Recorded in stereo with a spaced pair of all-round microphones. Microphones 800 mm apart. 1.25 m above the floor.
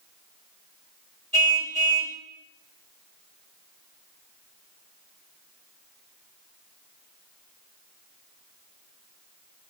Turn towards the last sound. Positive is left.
turn(degrees=-35)  # may be behind; listen again after turning